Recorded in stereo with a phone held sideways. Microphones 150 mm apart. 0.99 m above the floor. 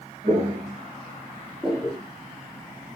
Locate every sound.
0.2 s footsteps: 40° right (ahead or behind), 1.4 m; by 2.0 s 5° left (ahead or behind), 1.0 m